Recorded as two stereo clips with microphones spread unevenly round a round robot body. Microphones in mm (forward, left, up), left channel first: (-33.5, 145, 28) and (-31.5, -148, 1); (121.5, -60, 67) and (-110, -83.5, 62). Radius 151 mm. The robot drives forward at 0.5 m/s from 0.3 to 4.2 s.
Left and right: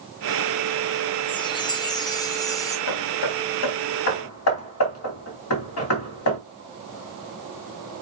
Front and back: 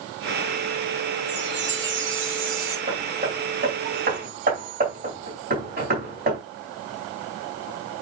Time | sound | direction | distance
1.3 | a chime | 165° left | 1.5 m
2.9 | hammering | 120° left | 3 m